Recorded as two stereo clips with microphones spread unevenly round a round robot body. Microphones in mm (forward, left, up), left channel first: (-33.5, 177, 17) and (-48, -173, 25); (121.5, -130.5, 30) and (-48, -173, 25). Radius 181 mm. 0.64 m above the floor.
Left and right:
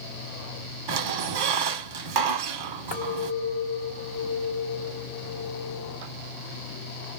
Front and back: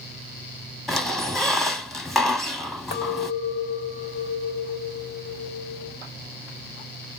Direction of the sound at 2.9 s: 20° left.